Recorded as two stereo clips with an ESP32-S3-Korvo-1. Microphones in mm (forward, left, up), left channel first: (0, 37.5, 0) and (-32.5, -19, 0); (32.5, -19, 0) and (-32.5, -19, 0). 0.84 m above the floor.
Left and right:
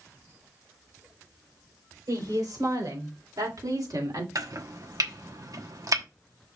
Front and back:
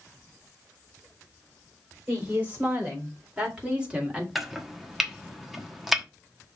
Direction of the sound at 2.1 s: 115° right.